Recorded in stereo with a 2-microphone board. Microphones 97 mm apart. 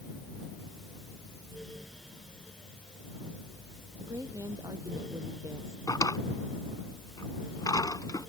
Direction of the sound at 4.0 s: 40° right (ahead or behind).